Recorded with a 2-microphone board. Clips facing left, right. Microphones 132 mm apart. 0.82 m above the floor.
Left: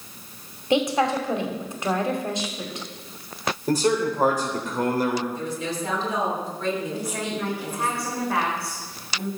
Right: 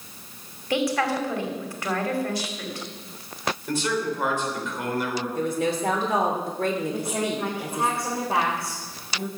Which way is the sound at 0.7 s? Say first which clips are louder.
Left 3 dB; 20° left (ahead or behind).